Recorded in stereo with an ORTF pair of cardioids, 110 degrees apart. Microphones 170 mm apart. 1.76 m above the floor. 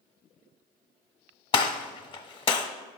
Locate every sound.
1.5 s a gunshot: 30° left, 0.8 m